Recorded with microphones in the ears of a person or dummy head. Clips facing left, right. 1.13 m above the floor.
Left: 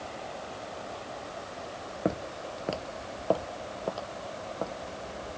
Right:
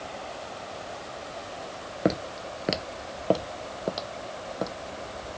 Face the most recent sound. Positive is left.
turn(degrees=-25)  # may be behind; listen again after turning